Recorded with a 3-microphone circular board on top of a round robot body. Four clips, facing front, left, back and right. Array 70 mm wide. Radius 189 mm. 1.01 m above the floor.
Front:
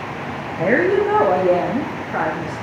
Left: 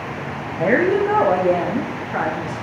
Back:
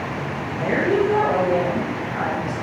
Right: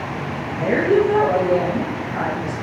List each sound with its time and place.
0.6 s a woman speaking: 50° left, 2.5 m; by 2.5 s 40° left, 4.5 m